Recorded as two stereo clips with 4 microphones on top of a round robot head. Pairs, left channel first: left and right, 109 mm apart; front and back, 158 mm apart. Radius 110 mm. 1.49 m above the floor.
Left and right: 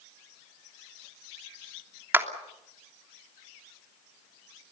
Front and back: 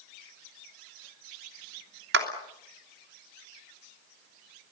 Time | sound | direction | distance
2.1 | a clap | 160° right | 3 m